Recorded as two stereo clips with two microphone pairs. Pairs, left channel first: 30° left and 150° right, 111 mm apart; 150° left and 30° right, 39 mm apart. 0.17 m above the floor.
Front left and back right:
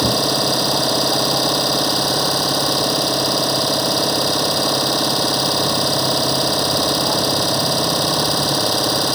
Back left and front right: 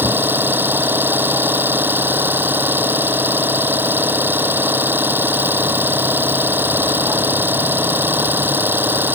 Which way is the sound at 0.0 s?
60° right.